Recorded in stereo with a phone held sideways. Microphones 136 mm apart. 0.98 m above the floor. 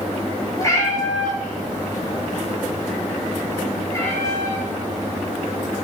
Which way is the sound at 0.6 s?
25° left (ahead or behind).